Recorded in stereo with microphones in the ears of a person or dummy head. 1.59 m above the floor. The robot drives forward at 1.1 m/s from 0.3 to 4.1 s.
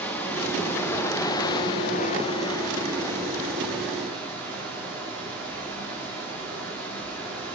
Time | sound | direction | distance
0.0 | running water | 10° left (ahead or behind) | 1.9 m